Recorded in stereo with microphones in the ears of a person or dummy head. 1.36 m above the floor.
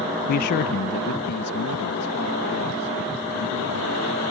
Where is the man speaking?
45° left (ahead or behind); by 4.2 s 55° left (ahead or behind).